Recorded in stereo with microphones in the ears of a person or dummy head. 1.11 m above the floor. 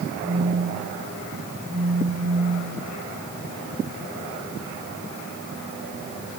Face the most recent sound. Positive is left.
turn(degrees=-30)  # may be behind; listen again after turning